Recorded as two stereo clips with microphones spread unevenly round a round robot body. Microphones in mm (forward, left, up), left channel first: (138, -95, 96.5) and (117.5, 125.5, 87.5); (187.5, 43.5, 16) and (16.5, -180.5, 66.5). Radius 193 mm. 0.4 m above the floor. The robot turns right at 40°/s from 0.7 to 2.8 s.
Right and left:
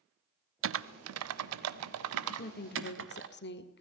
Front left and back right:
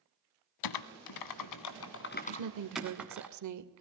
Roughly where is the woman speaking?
Behind right.